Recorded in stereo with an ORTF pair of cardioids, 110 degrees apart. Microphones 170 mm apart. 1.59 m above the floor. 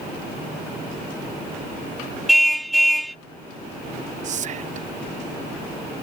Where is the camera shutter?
I don't hear a camera shutter.